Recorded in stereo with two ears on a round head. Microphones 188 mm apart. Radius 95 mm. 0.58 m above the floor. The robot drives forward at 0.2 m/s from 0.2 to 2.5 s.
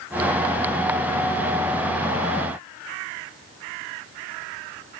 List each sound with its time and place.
Only background noise.